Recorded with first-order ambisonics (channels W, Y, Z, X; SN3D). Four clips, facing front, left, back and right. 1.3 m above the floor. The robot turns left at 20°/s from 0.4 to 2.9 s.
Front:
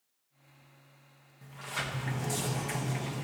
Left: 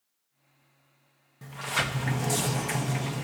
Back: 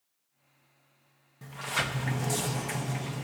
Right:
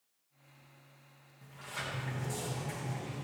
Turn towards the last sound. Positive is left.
turn(degrees=95)